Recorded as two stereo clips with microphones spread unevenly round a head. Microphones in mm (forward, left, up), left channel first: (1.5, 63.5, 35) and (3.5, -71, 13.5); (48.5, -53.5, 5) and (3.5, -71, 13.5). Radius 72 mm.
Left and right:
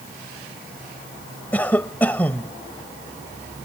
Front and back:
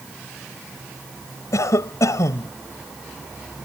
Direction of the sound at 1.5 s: 15° left.